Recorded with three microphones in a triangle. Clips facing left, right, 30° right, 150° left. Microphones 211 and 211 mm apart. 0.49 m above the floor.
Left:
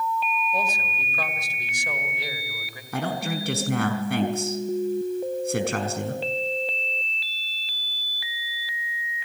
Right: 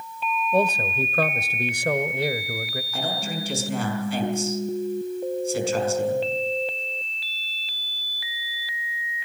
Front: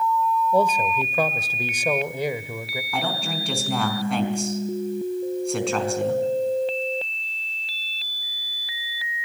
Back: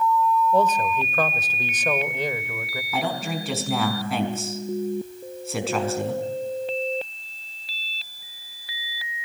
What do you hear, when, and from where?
0.5 s a man speaking: 110° right, 1.5 m
2.9 s a man speaking: 65° left, 5 m